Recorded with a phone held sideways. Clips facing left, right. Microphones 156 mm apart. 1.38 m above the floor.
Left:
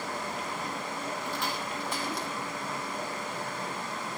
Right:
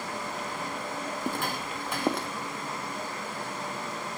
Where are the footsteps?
50° right (ahead or behind), 2.5 m; by 2.3 s 60° right (ahead or behind), 2.5 m.